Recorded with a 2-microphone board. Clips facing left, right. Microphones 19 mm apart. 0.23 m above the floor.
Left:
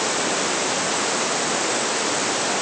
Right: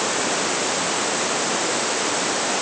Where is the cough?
I don't hear a cough.